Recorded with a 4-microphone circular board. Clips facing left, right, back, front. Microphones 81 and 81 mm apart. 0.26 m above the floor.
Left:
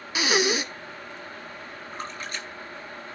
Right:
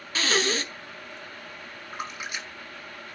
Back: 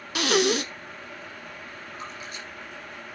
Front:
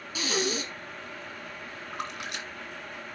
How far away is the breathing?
About 1.2 m.